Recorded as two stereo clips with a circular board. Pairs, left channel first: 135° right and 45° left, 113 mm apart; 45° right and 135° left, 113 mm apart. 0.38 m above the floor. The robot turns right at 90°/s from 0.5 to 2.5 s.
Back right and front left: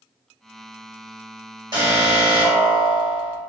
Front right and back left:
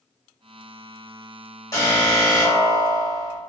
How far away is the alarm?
About 1.2 m.